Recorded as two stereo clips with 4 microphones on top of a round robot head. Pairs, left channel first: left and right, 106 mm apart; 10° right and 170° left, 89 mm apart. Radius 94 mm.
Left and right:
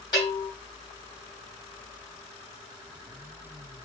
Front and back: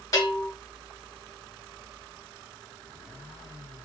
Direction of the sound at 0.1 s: 40° left.